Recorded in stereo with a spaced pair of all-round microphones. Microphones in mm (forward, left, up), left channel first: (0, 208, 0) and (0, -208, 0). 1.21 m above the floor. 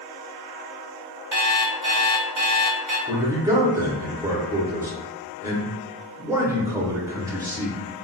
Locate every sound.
1.3 s an alarm clock: 45° right (ahead or behind), 0.6 m
3.1 s a man speaking: 5° right (ahead or behind), 0.7 m